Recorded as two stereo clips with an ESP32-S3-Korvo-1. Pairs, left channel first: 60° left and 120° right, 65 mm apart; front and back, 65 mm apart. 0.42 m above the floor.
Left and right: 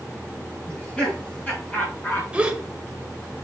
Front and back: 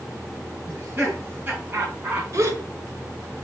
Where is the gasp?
170° left, 1.3 m.